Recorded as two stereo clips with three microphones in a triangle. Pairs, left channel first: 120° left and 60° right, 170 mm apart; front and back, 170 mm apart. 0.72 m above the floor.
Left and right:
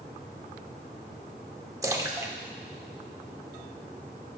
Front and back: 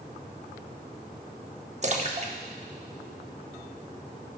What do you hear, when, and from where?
1.8 s a splash: 130° right, 0.7 m